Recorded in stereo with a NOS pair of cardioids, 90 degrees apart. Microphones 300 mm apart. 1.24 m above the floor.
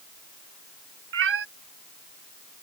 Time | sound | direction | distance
1.1 | a cat meowing | 50° right | ?